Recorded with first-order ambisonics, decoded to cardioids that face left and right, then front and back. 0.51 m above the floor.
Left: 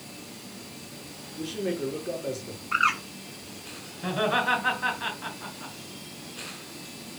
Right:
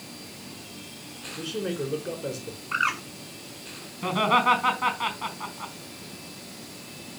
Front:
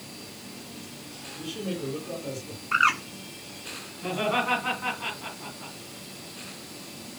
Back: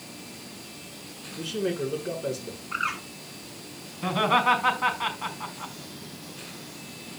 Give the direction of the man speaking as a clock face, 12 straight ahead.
5 o'clock.